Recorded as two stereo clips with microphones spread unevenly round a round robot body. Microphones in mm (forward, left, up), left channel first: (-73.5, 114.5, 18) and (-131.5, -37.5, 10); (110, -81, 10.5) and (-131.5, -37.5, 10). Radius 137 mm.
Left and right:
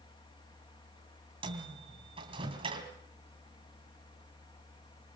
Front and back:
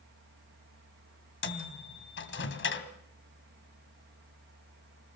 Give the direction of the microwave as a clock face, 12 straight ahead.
1 o'clock.